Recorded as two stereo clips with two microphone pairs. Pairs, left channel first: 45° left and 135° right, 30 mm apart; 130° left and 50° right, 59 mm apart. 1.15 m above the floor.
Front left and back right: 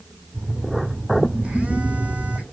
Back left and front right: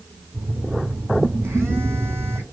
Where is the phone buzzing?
95° right, 3 m.